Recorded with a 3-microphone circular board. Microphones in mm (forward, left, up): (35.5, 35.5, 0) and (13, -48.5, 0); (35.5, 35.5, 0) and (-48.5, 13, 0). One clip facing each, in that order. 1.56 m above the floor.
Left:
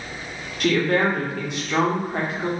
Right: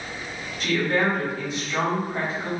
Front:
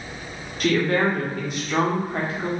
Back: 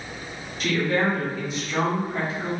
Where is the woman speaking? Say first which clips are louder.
Left 3 dB, front 3 dB; 50° left, 0.9 m.